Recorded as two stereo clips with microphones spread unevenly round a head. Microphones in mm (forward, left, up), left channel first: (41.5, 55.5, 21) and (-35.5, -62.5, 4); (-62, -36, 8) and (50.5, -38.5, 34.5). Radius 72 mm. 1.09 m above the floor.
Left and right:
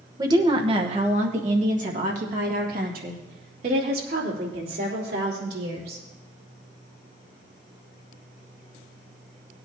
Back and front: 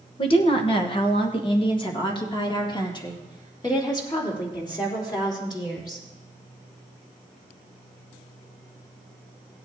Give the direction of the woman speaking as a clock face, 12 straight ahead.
6 o'clock.